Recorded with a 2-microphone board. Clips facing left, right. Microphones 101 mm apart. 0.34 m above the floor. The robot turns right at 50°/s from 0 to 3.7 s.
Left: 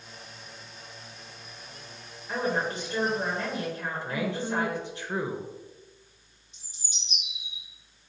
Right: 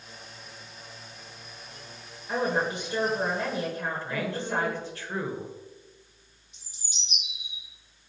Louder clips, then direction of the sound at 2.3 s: Right 2 dB; 10° right (ahead or behind).